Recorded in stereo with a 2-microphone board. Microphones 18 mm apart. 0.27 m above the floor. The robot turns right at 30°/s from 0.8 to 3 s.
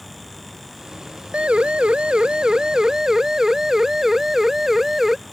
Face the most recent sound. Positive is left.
turn(degrees=-25)  # may be behind; listen again after turning